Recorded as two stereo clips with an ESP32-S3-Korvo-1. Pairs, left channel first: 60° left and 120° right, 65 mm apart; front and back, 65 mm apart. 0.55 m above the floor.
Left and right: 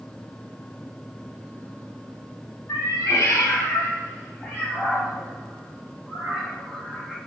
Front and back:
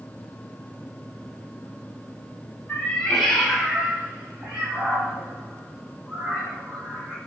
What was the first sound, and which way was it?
A cat meowing, 60° left.